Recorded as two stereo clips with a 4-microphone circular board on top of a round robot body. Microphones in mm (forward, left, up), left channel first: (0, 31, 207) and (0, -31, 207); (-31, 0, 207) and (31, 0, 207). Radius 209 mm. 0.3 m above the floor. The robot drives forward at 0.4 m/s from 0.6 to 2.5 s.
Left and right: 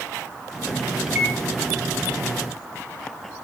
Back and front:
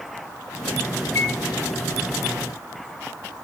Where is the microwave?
175° right, 2.5 m.